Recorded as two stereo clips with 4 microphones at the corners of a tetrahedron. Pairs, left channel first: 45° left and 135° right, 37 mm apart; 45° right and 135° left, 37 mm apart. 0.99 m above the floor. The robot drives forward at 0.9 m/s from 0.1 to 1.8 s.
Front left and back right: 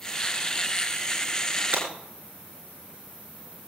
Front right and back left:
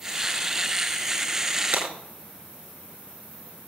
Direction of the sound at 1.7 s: 165° left.